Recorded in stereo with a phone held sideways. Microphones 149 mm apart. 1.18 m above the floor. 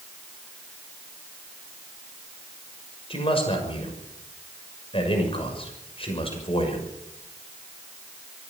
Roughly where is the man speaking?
Left.